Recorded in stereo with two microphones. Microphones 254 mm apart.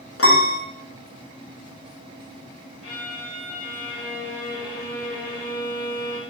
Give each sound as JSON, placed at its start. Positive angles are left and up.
{"t": 0.2, "sound": "a piano", "side_deg": 60, "distance_m": 0.5}
{"t": 2.8, "sound": "a violin", "side_deg": 70, "distance_m": 1.4}